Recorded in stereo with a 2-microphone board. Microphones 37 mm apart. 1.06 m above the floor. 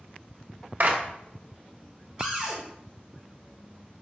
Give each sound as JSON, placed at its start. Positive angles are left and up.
{"t": 0.8, "sound": "a clap", "side_deg": -55, "distance_m": 0.7}
{"t": 2.2, "sound": "a cupboard door", "side_deg": -25, "distance_m": 2.0}